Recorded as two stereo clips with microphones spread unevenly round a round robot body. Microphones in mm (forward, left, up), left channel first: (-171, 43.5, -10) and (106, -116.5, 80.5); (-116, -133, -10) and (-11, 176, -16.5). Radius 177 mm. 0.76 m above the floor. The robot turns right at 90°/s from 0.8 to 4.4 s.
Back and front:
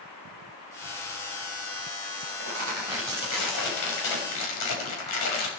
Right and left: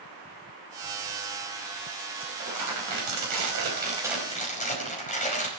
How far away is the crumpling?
About 5 m.